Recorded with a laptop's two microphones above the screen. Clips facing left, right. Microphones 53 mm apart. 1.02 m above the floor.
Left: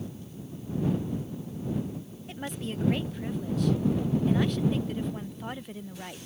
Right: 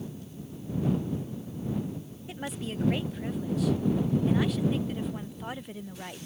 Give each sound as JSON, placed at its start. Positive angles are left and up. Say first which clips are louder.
{"t": 2.3, "sound": "a woman speaking", "louder": "even", "side_deg": -5}